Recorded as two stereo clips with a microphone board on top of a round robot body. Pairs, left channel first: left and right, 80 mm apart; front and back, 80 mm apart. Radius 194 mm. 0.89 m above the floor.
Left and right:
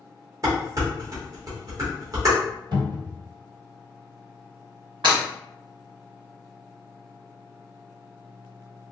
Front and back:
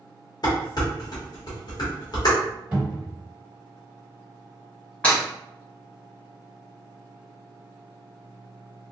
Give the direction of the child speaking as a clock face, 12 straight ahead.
No child speaking in this recording.